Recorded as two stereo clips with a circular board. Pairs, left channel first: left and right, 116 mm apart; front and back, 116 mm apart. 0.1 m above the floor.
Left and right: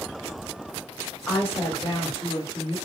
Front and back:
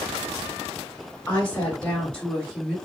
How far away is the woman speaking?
About 1.6 m.